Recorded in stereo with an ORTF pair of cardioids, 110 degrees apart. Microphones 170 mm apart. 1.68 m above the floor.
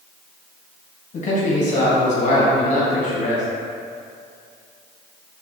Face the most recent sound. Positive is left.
turn(degrees=45)